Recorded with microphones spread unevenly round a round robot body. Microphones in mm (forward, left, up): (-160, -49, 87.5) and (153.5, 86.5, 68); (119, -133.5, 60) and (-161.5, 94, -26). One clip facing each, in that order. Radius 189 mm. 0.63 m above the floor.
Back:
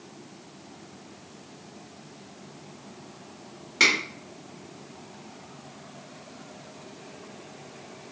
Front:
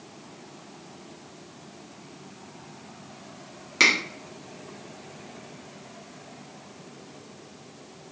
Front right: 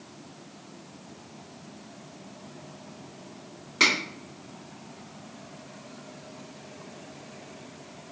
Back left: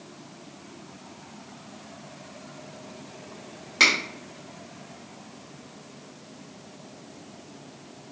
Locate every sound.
3.8 s a finger snap: 80° left, 1.7 m